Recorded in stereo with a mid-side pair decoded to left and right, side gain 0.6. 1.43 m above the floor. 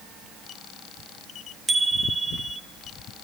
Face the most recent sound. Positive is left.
turn(degrees=-10)